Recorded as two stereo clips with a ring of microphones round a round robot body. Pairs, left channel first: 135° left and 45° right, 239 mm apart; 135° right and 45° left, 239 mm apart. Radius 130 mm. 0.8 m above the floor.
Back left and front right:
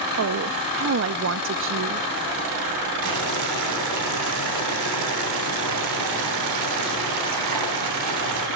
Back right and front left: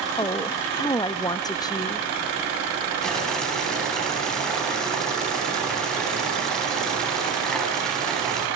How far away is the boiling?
About 4 m.